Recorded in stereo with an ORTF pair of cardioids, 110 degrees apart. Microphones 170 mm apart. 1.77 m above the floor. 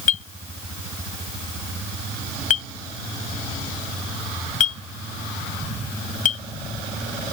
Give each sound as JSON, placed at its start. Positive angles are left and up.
{"t": 0.1, "sound": "a clink", "azimuth_deg": 50}